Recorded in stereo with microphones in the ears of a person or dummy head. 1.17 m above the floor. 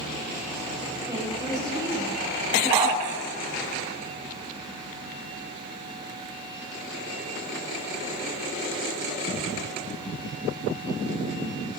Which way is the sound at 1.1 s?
25° right (ahead or behind).